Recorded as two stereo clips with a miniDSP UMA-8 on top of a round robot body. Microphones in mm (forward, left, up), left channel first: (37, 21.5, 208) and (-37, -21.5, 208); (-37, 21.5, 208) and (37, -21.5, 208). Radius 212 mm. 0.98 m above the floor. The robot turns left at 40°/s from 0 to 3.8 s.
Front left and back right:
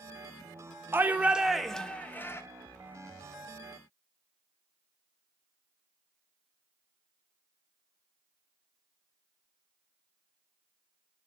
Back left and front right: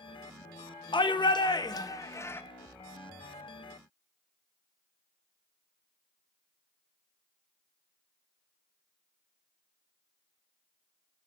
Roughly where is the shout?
Behind left.